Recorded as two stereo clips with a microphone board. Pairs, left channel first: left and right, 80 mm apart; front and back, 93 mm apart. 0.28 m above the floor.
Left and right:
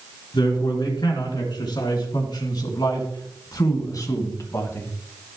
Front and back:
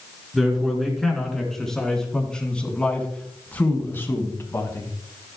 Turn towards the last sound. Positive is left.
turn(degrees=45)